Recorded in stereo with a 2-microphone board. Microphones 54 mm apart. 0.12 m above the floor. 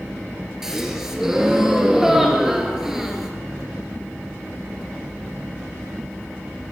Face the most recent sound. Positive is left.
turn(degrees=-10)  # may be behind; listen again after turning